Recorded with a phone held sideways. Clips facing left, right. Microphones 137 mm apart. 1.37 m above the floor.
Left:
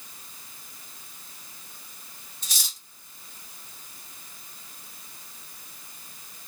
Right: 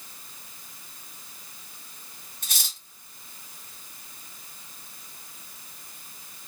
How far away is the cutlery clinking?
About 1.1 m.